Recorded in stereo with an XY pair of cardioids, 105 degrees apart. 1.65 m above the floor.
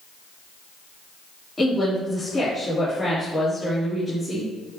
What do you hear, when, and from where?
1.6 s a woman speaking: 15° left, 4 m